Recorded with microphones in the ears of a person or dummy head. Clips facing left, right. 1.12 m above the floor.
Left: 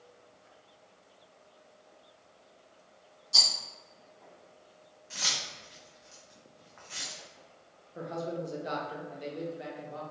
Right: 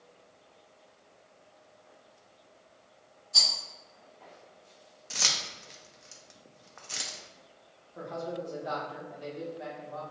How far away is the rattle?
About 1.5 m.